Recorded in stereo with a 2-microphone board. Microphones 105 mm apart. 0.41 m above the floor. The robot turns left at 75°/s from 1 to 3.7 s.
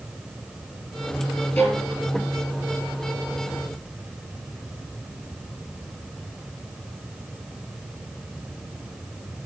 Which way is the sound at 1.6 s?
15° left (ahead or behind).